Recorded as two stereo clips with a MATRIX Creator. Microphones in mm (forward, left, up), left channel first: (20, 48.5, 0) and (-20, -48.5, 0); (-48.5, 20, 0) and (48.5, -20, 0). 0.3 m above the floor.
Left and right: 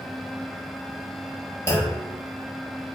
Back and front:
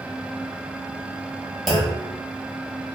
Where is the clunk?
70° left, 0.9 m.